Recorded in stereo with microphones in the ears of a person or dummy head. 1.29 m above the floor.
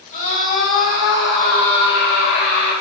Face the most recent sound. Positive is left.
turn(degrees=45)  # may be behind; listen again after turning